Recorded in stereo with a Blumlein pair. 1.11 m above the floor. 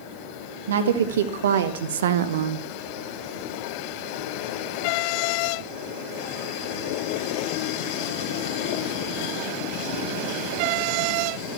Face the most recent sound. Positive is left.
turn(degrees=-55)